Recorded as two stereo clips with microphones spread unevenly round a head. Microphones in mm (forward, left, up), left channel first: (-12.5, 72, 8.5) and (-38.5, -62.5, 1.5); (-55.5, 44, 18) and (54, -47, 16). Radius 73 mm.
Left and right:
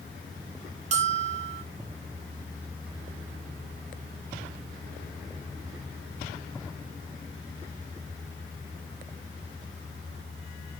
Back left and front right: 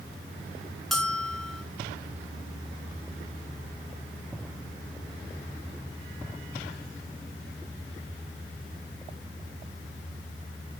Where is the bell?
130° right, 1.0 m.